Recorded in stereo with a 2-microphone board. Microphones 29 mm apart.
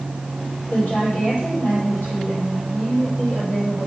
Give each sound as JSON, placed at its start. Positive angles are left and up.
{"t": 0.7, "sound": "a woman speaking", "side_deg": 70, "distance_m": 4.5}